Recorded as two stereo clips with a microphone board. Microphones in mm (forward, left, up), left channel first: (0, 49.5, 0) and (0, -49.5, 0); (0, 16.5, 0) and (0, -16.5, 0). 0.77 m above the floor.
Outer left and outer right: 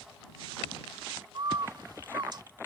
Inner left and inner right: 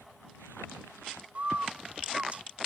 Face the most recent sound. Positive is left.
turn(degrees=-50)  # may be behind; listen again after turning